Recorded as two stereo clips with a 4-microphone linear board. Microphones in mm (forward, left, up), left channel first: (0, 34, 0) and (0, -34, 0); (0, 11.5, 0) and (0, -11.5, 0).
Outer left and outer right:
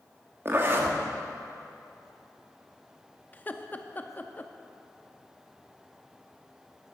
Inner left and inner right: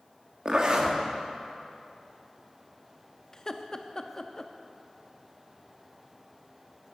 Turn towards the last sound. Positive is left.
turn(degrees=25)  # may be behind; listen again after turning